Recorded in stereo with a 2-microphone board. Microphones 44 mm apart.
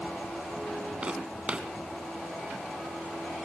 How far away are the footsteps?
About 1.7 m.